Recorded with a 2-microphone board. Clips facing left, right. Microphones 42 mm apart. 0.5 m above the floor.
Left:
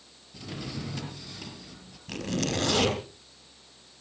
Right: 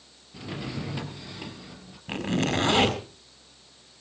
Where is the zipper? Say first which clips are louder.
Right 4 dB; 30° right (ahead or behind), 4.5 m.